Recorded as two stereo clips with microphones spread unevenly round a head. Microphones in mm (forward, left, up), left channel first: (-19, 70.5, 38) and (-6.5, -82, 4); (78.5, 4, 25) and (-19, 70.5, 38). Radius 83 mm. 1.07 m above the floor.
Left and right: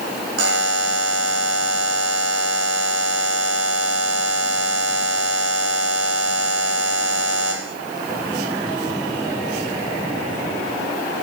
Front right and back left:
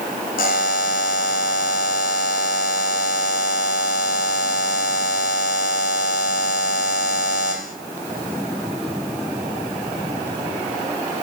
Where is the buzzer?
65° right, 1.5 m.